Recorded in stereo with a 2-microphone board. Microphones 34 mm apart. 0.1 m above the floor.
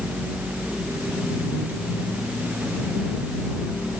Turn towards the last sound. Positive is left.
No sound to turn to.